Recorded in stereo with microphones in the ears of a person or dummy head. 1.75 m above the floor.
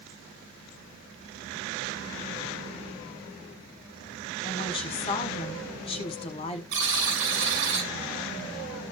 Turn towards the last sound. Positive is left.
turn(degrees=-75)  # may be behind; listen again after turning